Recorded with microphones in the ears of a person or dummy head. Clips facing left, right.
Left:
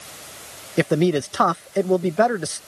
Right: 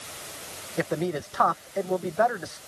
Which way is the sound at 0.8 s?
45° left (ahead or behind).